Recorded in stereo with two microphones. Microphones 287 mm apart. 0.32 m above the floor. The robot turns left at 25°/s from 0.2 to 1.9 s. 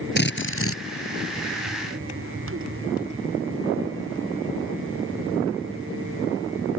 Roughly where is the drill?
Left.